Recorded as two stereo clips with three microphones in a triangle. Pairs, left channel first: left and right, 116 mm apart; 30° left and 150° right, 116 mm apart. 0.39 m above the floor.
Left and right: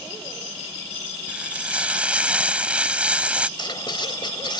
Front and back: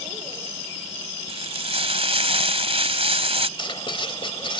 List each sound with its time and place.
1.3 s frying: 170° right
3.6 s writing: 55° left